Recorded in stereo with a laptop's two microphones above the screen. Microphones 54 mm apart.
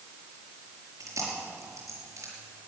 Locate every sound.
1.0 s chewing: 75° right (ahead or behind), 5 m